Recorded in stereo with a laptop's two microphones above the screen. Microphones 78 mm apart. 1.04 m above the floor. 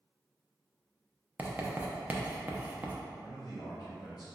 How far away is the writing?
About 0.6 m.